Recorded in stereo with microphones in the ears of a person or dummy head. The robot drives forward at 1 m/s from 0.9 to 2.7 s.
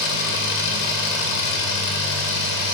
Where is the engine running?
65° left (ahead or behind), 2 m; by 2.8 s 50° left (ahead or behind), 2.5 m.